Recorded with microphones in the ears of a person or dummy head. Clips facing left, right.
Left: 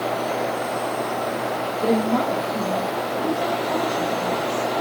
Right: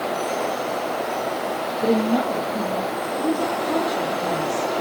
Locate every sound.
1.8 s a woman speaking: 5° right (ahead or behind), 1.2 m; by 4.8 s 55° right (ahead or behind), 3 m